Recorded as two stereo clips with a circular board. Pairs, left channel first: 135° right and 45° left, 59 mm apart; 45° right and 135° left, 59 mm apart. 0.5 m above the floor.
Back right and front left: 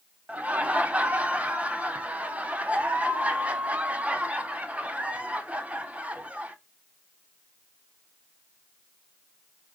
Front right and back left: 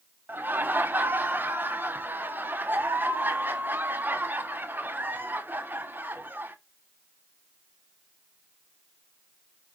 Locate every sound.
0.3 s laughter: 100° left, 1.0 m